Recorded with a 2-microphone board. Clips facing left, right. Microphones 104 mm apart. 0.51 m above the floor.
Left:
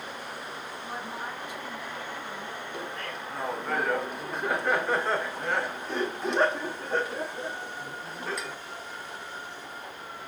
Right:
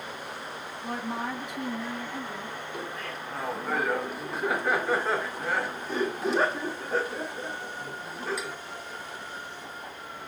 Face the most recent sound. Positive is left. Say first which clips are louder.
# even
turn(degrees=-5)  # may be behind; listen again after turning